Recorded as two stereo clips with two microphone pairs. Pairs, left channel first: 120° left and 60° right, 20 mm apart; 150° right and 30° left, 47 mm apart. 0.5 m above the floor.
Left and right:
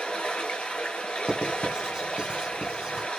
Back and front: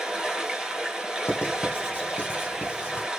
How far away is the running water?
About 3 m.